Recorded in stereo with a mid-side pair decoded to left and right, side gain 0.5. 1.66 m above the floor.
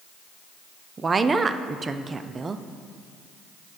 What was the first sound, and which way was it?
A woman speaking, 30° right.